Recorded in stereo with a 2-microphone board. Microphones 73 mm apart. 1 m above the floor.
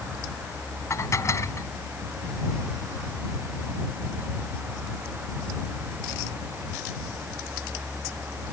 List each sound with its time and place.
0.9 s dishes clattering: 40° left (ahead or behind)